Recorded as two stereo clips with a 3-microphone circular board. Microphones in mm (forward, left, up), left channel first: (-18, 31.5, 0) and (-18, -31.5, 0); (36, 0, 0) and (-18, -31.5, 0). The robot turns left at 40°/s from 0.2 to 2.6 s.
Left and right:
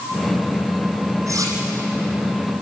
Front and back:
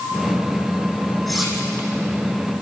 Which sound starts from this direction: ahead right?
Cutlery clinking, at 1.3 s.